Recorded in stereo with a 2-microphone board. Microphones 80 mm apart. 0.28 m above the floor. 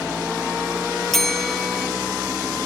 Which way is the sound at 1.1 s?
5° left (ahead or behind).